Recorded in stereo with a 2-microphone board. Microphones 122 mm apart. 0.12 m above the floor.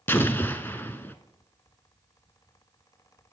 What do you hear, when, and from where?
0.1 s an explosion: 20° left (ahead or behind), 0.5 m